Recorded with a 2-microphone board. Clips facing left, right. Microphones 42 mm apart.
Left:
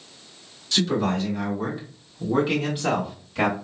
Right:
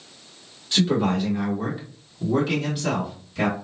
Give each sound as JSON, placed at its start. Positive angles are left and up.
{"t": 0.7, "sound": "a man speaking", "side_deg": -20, "distance_m": 1.5}